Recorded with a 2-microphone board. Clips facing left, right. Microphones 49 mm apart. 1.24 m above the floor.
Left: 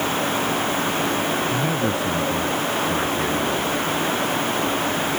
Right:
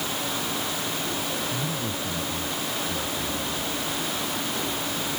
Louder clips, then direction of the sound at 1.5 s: Left 8 dB; 60° left (ahead or behind).